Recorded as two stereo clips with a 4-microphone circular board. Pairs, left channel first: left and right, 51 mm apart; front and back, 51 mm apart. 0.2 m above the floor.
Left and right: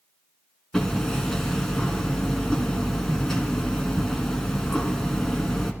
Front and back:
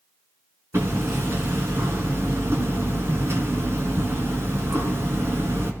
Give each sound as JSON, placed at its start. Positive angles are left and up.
{"t": 0.7, "sound": "hammering", "azimuth_deg": 165, "distance_m": 2.0}